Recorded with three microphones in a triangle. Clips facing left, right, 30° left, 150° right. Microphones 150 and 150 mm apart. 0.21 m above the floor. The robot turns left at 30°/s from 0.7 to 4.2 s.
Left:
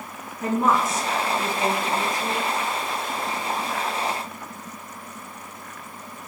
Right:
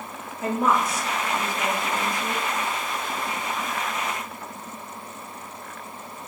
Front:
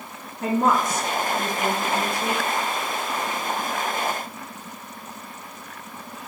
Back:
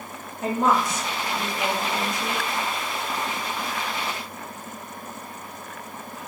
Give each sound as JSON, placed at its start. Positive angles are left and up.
{"t": 0.4, "sound": "a woman speaking", "azimuth_deg": 65, "distance_m": 2.0}